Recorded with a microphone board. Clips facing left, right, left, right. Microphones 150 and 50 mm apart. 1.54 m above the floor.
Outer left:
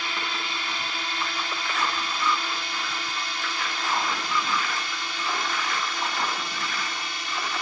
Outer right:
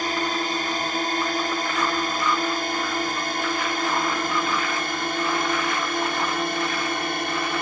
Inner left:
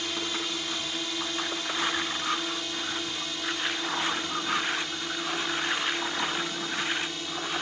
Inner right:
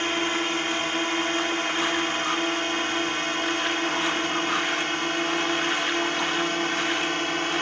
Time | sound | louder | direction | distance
0.0 | a drone | outer right 8 dB, inner right 7 dB | 45° right (ahead or behind) | ?